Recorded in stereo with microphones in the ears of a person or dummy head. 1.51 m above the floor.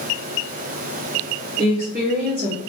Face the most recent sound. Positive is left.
turn(degrees=-55)  # may be behind; listen again after turning